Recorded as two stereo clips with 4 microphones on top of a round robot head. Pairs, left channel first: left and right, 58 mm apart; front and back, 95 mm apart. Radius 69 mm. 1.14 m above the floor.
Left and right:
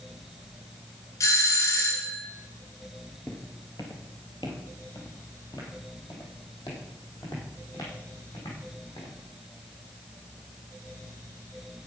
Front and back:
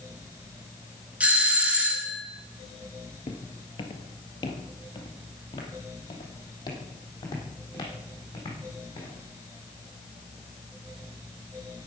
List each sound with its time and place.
1.2 s a doorbell: 105° left, 2.5 m
3.3 s footsteps: 20° left, 1.5 m; by 9.1 s 50° left, 4.5 m